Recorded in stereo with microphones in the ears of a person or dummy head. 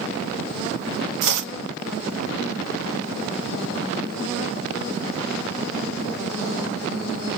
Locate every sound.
1.2 s chopping: 65° right (ahead or behind), 0.6 m